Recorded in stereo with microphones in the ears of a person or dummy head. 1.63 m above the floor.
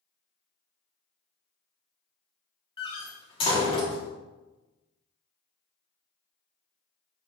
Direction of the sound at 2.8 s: 20° left (ahead or behind).